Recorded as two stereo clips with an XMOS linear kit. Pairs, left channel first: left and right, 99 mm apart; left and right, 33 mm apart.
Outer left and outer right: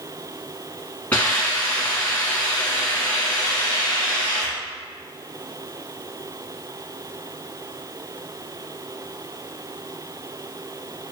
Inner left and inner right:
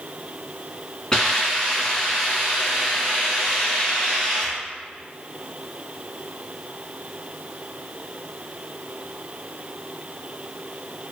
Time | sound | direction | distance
1.1 | a hiss | 15° left (ahead or behind) | 1.5 m